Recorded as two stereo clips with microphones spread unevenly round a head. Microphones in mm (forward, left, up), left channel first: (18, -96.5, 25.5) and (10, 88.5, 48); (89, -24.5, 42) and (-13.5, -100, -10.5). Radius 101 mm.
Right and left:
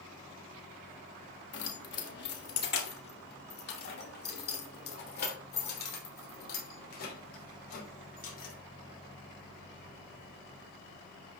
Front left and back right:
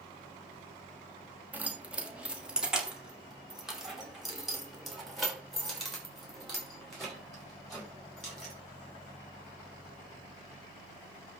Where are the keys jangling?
60° right, 1.6 m; by 8.5 s 45° right, 5 m.